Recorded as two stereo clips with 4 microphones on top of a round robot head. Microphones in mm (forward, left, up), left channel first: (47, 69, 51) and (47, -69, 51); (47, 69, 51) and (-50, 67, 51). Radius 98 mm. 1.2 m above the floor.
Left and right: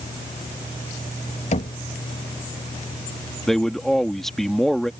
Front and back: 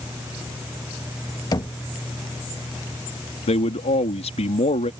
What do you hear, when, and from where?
1.5 s knocking: 50° left
3.5 s a man speaking: 5° left